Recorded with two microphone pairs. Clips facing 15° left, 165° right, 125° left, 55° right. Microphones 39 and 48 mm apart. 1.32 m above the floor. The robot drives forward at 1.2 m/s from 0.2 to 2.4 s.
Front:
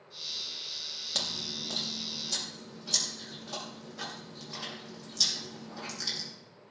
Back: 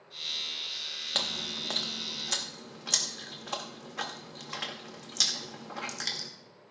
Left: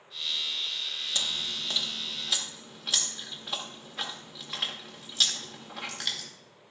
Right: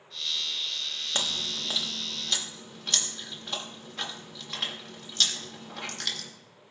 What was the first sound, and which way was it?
Chewing, 105° right.